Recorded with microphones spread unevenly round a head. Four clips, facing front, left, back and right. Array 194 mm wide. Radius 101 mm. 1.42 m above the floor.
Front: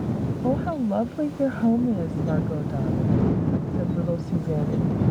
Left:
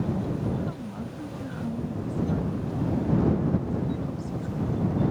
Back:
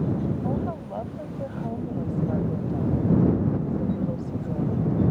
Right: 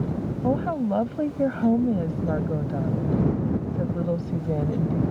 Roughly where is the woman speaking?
Ahead right.